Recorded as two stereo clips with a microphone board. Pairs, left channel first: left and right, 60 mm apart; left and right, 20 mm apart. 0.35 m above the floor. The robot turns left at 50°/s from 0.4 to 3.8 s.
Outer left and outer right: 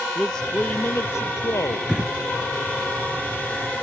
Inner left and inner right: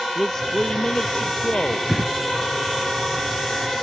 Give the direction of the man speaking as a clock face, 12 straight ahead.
6 o'clock.